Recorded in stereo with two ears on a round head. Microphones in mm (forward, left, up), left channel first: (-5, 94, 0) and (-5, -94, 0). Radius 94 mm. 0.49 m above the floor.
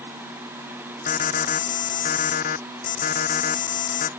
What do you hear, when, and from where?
1.1 s an alarm: 40° left (ahead or behind)